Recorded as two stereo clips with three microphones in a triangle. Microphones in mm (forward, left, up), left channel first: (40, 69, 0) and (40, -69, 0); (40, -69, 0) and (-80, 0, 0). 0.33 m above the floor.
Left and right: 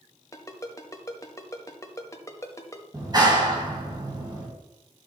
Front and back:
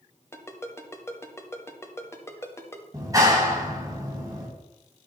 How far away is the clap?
About 2 m.